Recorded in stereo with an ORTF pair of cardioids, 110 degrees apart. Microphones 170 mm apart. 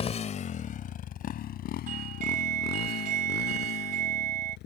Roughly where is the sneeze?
No sneeze in this recording.